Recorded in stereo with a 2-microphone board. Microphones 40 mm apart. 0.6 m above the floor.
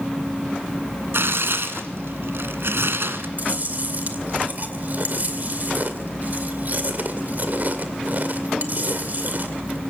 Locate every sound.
1.1 s tearing paper: 80° right, 1.7 m
3.4 s chewing: 45° right (ahead or behind), 2 m